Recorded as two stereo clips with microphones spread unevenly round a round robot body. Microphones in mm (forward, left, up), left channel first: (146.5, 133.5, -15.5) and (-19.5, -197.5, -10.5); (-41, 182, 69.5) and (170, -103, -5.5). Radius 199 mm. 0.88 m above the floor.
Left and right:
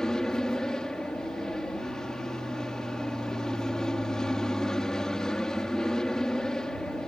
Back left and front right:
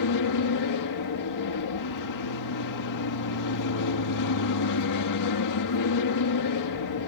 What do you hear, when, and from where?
0.0 s an aircraft: 150° left